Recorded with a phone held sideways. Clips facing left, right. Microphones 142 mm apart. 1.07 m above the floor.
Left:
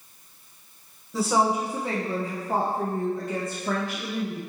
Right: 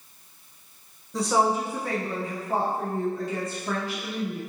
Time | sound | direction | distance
1.1 | a woman speaking | centre (ahead or behind) | 1.0 m